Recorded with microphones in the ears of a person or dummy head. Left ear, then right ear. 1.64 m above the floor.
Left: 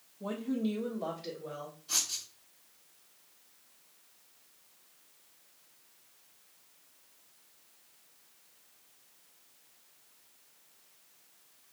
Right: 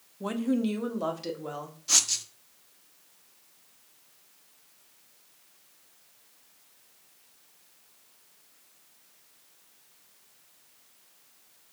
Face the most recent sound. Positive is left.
turn(degrees=-55)  # may be behind; listen again after turning